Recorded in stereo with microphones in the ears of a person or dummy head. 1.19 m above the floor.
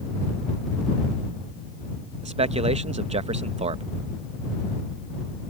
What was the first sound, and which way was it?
A man speaking, 35° right (ahead or behind).